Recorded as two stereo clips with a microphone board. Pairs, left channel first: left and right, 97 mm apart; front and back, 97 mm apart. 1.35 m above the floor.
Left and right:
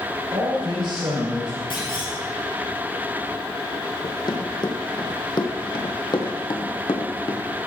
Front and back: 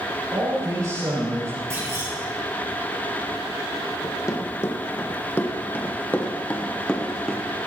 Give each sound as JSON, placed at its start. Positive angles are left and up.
{"t": 0.3, "sound": "a man speaking", "azimuth_deg": -135, "distance_m": 5.0}
{"t": 1.7, "sound": "a clunk", "azimuth_deg": 120, "distance_m": 7.0}
{"t": 4.0, "sound": "running footsteps", "azimuth_deg": 55, "distance_m": 3.0}